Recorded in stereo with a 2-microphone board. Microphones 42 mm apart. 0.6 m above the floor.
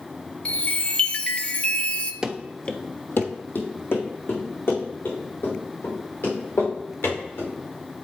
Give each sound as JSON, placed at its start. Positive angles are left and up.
{"t": 0.5, "sound": "a chime", "side_deg": 30, "distance_m": 0.5}
{"t": 2.2, "sound": "running footsteps", "side_deg": -15, "distance_m": 0.7}